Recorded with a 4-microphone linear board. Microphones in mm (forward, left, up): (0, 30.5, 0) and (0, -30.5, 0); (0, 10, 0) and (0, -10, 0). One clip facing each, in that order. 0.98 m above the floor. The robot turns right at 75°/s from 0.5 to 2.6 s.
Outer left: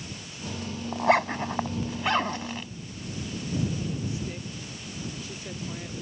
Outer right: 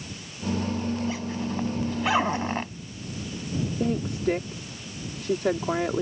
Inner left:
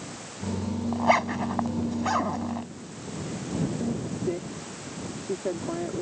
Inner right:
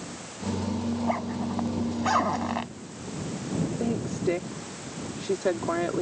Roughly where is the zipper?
Left.